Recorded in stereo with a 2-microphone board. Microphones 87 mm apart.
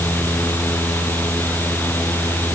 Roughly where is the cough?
No cough in this recording.